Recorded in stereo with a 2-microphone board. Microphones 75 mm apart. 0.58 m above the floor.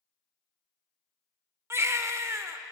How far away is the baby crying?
About 0.6 m.